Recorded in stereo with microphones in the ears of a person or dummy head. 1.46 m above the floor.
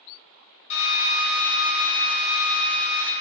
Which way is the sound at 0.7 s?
35° left (ahead or behind).